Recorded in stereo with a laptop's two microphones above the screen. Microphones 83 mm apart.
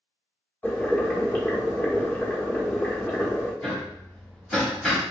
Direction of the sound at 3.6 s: 10° left (ahead or behind).